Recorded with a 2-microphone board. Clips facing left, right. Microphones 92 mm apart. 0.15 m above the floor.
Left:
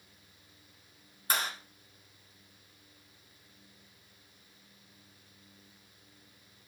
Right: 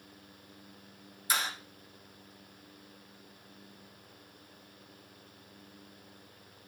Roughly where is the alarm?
I don't hear an alarm.